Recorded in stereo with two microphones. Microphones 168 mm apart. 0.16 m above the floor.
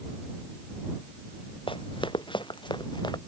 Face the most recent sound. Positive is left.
turn(degrees=25)  # may be behind; listen again after turning